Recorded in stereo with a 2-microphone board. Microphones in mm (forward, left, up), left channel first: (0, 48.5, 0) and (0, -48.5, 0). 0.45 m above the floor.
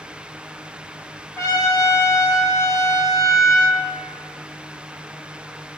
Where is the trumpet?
35° left (ahead or behind), 0.8 m.